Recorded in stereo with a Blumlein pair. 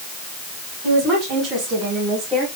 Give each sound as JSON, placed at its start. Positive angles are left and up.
{"t": 0.8, "sound": "a woman speaking", "azimuth_deg": -20, "distance_m": 5.5}